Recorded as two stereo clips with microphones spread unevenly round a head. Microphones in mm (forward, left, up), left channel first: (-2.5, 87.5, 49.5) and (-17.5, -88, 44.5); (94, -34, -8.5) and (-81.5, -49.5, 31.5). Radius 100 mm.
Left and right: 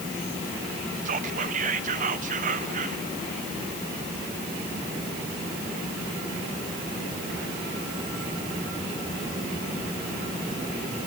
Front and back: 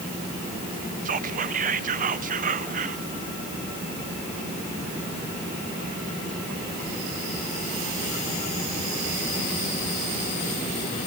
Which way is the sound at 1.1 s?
140° right.